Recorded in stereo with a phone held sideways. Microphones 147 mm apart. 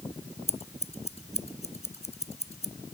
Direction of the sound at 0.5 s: 45° left (ahead or behind).